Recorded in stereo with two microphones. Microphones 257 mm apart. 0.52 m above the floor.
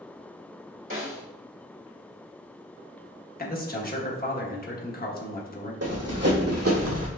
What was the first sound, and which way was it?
A snare drum, 50° right (ahead or behind).